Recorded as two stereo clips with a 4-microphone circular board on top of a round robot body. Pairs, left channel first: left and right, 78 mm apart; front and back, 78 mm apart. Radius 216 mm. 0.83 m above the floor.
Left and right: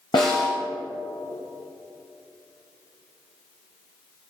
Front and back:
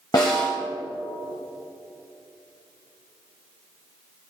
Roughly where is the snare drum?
Ahead left.